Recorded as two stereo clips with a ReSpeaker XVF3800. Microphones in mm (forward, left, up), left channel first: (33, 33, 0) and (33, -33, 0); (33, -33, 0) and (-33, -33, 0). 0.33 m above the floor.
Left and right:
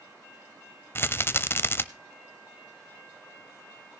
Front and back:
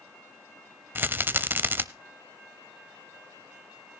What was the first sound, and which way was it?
A rattle, 130° left.